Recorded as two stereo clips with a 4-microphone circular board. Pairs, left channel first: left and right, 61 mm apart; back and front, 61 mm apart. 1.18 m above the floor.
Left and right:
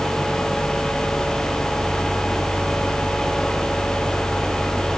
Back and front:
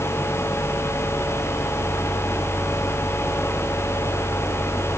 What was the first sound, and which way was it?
Only background noise.